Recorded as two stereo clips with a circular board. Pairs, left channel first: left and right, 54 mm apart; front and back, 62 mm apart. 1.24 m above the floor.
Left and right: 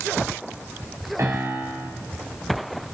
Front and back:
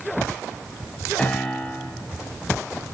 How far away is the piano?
About 3 m.